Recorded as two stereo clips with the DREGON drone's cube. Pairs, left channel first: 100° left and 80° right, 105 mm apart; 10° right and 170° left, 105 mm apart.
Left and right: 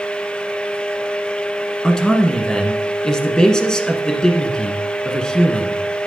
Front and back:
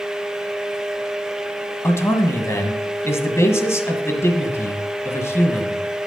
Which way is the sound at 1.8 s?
25° left.